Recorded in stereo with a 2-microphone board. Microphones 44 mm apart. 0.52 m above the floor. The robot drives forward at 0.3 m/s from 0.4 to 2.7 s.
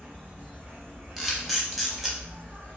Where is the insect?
45° right (ahead or behind), 1.3 m; by 2.8 s 70° right (ahead or behind), 0.9 m.